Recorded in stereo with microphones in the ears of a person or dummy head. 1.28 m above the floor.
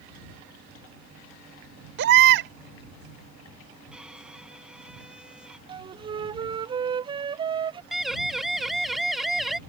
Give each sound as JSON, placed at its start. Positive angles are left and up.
{"t": 2.0, "sound": "a baby crying", "side_deg": -60}
{"t": 3.9, "sound": "a violin", "side_deg": -5}
{"t": 5.7, "sound": "a flute", "side_deg": -25}
{"t": 7.9, "sound": "a siren", "side_deg": 0}